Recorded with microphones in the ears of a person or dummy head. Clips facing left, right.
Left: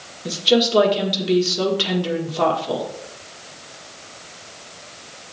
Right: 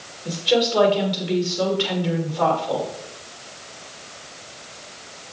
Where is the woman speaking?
55° left (ahead or behind), 1.5 m.